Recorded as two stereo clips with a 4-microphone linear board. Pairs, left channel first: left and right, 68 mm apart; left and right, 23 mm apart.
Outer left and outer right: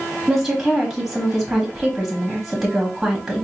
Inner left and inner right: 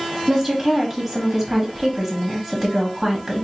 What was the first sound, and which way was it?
A woman speaking, 5° right (ahead or behind).